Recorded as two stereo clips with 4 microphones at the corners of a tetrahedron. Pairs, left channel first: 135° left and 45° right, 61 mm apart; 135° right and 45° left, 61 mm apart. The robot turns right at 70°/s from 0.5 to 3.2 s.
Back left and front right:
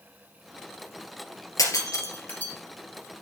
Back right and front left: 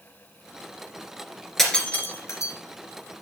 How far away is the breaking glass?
About 2 m.